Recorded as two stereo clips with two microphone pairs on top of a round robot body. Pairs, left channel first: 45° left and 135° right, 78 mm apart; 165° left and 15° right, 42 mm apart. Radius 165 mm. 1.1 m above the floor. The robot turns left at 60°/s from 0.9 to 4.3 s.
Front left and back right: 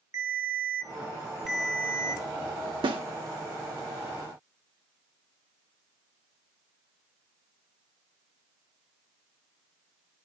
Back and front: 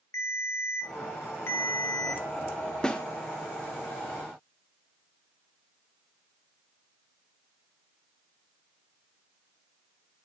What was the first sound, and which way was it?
A ringtone, 175° left.